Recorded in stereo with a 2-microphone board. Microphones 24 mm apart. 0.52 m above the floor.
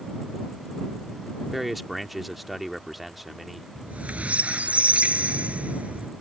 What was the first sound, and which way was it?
A man speaking, centre (ahead or behind).